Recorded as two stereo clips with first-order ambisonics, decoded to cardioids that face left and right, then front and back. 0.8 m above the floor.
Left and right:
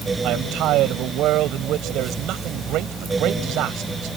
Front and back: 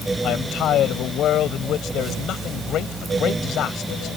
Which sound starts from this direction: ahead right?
A man speaking, at 0.2 s.